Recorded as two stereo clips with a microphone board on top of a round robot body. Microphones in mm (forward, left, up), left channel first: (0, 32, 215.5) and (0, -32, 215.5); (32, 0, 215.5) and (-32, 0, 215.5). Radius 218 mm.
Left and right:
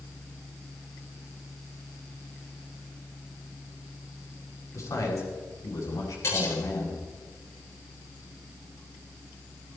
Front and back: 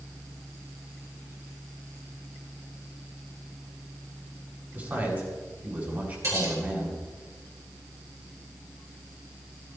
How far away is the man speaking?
About 7 m.